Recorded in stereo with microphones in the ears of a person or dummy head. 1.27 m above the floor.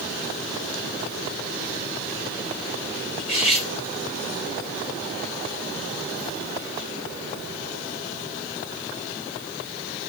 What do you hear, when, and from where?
3.2 s cutlery clinking: 55° right (ahead or behind), 5 m